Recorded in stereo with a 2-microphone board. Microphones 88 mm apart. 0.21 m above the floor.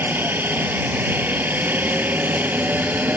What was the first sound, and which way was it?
A helicopter, 20° right (ahead or behind).